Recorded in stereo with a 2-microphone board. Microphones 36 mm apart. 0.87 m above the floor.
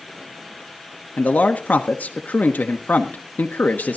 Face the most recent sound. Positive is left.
turn(degrees=60)  # may be behind; listen again after turning